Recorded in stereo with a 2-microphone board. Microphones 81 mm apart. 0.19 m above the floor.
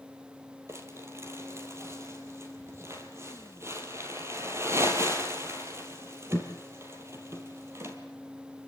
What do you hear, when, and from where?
0.7 s crumpling: 30° right (ahead or behind), 3 m